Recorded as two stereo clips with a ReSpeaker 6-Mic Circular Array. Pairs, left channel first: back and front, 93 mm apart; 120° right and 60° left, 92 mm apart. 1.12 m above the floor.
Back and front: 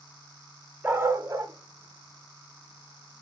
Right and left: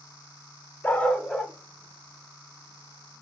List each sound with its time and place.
0.8 s a dog barking: 55° right, 0.7 m; by 3.2 s 15° right, 1.6 m